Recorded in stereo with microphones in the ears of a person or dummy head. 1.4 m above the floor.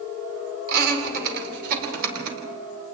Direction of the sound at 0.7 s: 55° right (ahead or behind).